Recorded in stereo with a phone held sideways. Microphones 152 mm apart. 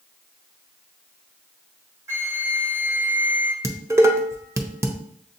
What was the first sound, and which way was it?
A flute, 20° right (ahead or behind).